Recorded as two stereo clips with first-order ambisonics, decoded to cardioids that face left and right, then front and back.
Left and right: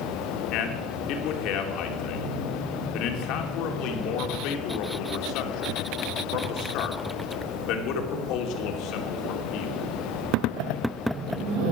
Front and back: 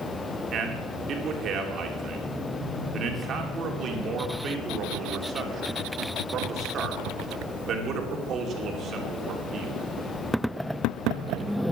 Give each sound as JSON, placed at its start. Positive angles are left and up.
{"t": 0.5, "sound": "a man speaking", "azimuth_deg": 125, "distance_m": 2.5}